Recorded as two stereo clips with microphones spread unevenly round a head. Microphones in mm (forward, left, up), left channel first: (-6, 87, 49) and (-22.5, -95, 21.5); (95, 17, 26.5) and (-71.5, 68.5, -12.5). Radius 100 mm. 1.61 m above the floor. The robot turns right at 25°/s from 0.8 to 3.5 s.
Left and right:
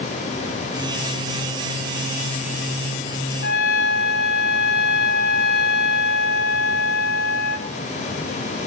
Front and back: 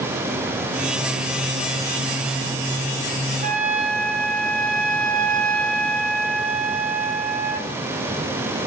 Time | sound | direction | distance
3.4 | a trumpet | 115° left | 3 m